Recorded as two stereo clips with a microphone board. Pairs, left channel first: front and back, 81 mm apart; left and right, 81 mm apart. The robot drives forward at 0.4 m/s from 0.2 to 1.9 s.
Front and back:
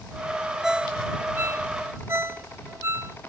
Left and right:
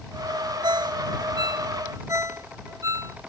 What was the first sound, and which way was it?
A ringtone, 95° right.